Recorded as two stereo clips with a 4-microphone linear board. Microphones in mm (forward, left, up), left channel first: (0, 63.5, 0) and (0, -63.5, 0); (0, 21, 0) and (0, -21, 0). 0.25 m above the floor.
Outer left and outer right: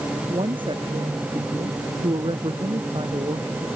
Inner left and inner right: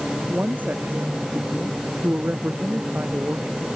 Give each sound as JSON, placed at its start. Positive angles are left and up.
{"t": 0.3, "sound": "a woman speaking", "side_deg": -40}